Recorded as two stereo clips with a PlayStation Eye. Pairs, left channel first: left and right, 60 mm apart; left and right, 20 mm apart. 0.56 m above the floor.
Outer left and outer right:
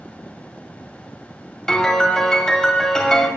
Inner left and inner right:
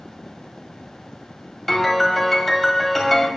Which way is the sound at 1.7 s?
15° left (ahead or behind).